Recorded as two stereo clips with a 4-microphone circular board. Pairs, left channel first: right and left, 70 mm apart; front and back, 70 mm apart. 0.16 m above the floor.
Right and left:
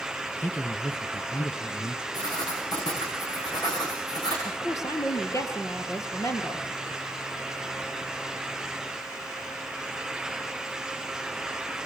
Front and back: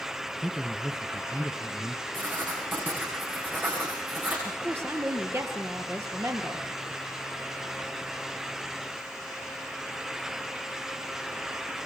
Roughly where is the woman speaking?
Behind right.